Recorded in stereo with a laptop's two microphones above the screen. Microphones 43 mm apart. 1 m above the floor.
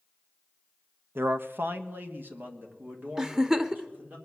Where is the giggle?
15° right (ahead or behind), 0.7 m.